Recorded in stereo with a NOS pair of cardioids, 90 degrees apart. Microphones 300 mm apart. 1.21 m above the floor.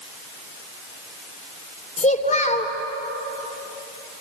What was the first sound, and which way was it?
A child speaking, 25° left.